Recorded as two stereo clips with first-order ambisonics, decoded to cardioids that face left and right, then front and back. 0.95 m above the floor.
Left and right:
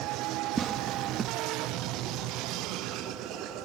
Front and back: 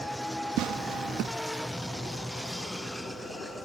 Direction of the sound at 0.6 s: 155° right.